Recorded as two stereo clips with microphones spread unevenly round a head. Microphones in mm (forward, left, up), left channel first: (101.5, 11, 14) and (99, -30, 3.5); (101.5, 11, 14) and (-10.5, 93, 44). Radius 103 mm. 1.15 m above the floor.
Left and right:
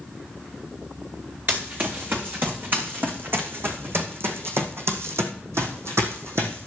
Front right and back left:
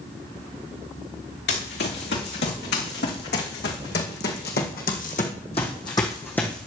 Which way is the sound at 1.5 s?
50° right.